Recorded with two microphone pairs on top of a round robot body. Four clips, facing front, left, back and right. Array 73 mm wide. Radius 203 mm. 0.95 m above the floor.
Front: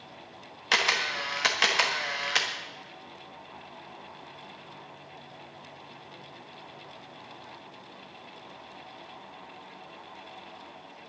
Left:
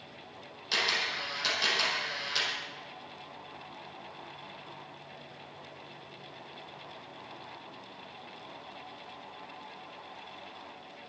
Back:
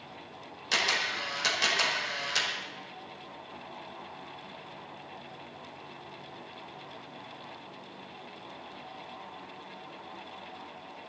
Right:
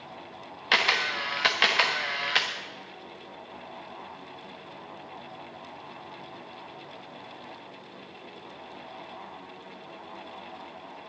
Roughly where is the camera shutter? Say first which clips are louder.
Right 7 dB, front 3 dB; ahead right.